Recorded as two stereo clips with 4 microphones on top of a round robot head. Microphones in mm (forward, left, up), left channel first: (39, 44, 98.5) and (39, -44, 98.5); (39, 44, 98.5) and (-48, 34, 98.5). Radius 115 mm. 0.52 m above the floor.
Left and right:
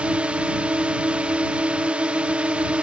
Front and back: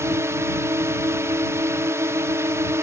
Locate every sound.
0.0 s a drone: 155° right